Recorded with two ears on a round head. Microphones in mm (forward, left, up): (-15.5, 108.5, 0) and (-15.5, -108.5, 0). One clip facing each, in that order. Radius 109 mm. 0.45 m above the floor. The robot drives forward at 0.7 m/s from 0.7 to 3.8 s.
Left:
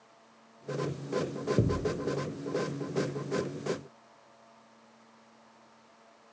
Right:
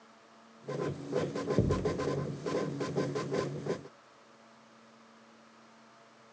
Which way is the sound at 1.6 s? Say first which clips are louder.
Left 1 dB; 10° left (ahead or behind).